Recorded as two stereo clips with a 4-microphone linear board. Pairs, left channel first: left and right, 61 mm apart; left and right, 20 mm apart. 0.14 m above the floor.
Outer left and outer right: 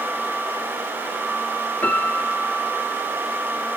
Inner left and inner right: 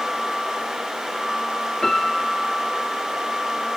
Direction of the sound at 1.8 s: 25° left (ahead or behind).